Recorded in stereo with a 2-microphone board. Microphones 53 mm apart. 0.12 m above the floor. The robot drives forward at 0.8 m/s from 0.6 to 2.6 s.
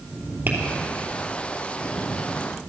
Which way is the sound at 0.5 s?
35° right (ahead or behind).